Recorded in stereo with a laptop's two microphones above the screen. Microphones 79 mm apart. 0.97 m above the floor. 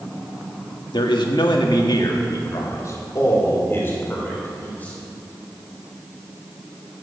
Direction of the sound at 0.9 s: 75° left (ahead or behind).